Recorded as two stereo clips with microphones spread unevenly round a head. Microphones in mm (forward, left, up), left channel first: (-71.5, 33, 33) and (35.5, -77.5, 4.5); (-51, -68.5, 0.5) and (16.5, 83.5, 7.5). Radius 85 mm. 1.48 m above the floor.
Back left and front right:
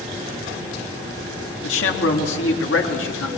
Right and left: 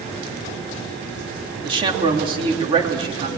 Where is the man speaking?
130° left, 3.5 m.